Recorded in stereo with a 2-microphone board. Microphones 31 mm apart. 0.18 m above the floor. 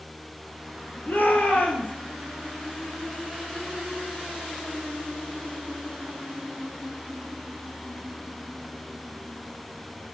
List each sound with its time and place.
1.1 s a shout: 65° left (ahead or behind), 4 m